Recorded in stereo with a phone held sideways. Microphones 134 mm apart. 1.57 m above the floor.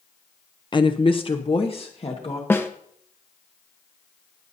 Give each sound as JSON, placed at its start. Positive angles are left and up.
{"t": 0.7, "sound": "a woman speaking", "side_deg": 35, "distance_m": 0.6}
{"t": 2.5, "sound": "a snare drum", "side_deg": 15, "distance_m": 1.0}